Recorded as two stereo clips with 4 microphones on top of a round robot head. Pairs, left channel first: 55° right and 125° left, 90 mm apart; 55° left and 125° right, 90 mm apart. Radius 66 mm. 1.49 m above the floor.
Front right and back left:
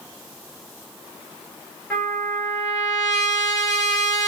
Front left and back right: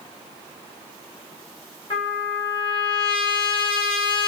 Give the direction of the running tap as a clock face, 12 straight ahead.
No running tap in this recording.